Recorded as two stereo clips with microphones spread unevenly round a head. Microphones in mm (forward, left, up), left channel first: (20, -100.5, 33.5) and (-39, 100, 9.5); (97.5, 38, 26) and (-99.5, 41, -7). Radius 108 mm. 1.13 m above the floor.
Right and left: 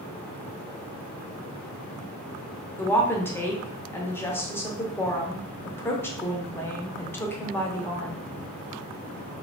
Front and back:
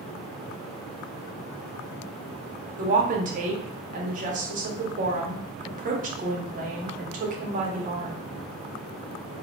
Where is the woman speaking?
155° right, 0.5 m.